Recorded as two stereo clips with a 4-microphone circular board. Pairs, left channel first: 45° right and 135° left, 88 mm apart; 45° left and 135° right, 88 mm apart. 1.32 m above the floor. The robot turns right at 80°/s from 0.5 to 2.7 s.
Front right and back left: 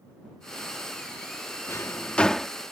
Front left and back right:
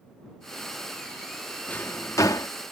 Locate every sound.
1.7 s a drawer: 15° right; by 2.5 s 50° left